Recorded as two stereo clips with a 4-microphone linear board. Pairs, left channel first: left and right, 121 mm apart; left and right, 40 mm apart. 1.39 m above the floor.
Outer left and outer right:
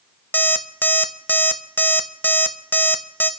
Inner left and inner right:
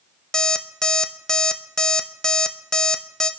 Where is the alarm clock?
15° left (ahead or behind), 0.7 m.